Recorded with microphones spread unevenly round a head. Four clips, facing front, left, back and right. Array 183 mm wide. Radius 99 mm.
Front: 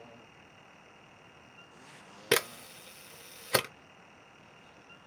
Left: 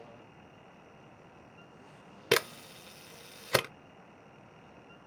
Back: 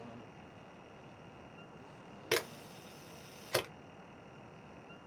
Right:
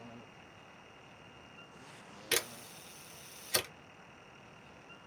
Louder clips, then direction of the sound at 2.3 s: Left 9 dB, front 6 dB; 40° left.